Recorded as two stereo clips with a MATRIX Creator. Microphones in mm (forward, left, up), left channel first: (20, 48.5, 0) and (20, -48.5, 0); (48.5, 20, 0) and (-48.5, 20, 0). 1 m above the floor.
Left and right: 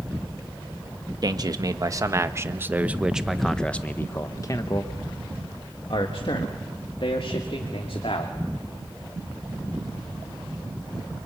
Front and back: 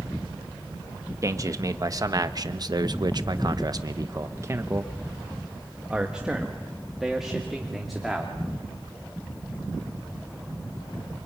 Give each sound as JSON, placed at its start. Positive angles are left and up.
{"t": 1.2, "sound": "a man speaking", "azimuth_deg": -130, "distance_m": 1.6}